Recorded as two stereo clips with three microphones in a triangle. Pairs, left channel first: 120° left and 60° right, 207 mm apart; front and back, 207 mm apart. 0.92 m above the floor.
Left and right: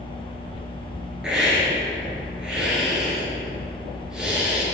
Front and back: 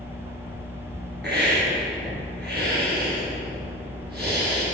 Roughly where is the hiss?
Behind right.